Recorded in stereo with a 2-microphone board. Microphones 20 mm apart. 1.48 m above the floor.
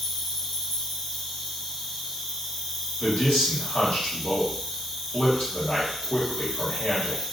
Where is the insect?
Centre (ahead or behind), 1.0 m.